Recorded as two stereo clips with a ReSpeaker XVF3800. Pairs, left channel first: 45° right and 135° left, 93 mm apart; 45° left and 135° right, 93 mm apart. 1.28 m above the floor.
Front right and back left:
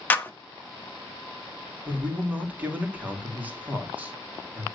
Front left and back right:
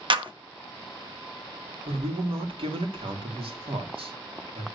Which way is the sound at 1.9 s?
150° right.